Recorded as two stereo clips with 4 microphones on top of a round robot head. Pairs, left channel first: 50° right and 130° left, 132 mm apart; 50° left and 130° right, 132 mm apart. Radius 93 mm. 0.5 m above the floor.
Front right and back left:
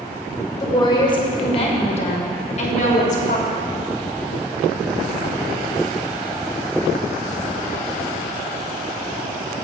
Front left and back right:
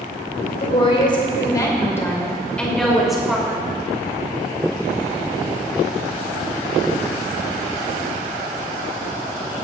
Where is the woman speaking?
10° left, 2.5 m; by 3.6 s 50° right, 3 m.